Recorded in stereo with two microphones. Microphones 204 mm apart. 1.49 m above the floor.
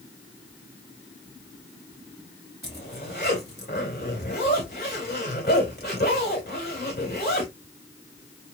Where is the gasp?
I don't hear a gasp.